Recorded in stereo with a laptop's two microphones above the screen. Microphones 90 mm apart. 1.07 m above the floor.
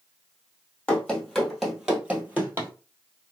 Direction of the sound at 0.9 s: 10° left (ahead or behind).